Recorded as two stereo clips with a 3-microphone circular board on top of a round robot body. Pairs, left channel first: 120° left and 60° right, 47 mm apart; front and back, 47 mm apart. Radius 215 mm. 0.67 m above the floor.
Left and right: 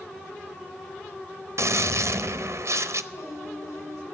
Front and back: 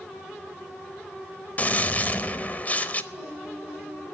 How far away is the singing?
About 7.5 m.